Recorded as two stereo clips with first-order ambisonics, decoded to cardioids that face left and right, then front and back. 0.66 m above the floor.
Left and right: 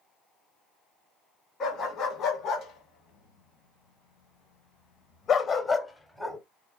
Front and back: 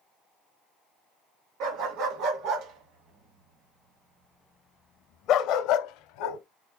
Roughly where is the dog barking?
Behind left.